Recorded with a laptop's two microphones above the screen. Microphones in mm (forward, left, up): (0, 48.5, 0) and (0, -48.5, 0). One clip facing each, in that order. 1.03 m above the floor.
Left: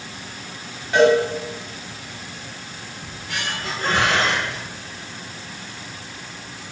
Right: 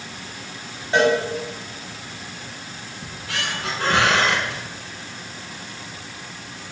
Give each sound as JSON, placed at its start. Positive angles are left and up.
{"t": 0.9, "sound": "a cowbell", "side_deg": -30, "distance_m": 6.0}
{"t": 3.0, "sound": "a squeak", "side_deg": -80, "distance_m": 4.0}